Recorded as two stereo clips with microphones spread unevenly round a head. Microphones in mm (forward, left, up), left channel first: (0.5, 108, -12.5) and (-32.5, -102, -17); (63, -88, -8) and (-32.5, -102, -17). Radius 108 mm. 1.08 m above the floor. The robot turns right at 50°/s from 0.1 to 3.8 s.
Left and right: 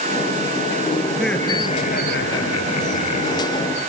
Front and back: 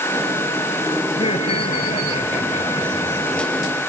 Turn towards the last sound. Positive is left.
turn(degrees=120)